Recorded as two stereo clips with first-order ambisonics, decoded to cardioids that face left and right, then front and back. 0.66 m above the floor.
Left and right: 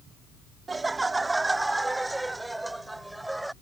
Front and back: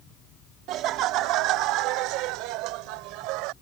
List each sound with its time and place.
0.7 s laughter: 160° right; by 3.5 s 175° right